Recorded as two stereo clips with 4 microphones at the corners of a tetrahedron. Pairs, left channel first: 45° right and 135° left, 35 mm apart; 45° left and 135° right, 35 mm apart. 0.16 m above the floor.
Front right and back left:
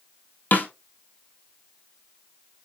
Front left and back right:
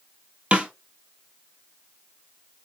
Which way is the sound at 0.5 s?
80° right.